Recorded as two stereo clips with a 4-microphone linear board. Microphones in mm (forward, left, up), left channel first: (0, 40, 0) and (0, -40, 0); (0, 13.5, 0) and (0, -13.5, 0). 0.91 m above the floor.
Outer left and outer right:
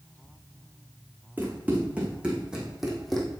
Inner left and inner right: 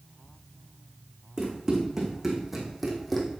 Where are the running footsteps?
20° right (ahead or behind), 4 m; by 3.3 s 5° left (ahead or behind), 2.5 m.